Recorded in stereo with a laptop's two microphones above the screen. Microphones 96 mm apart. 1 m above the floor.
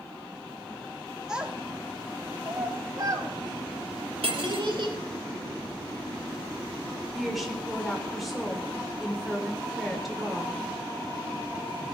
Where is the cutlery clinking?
80° right, 1.6 m.